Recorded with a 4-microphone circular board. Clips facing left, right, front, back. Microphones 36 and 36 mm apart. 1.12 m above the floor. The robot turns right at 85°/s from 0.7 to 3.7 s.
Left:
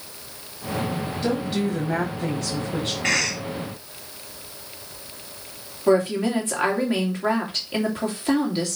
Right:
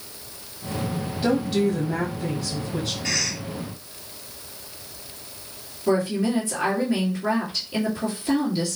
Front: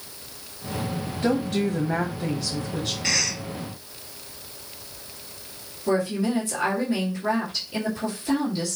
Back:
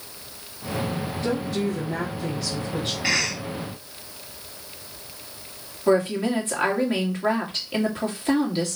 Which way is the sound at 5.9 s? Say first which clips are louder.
Left 3 dB, back 3 dB; 130° left.